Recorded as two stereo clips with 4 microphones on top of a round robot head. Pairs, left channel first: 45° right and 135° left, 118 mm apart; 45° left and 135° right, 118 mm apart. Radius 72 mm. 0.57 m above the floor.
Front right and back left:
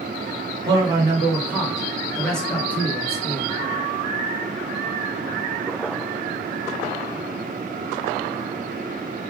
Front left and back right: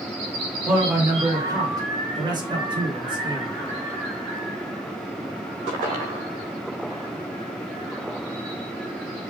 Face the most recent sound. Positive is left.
turn(degrees=-100)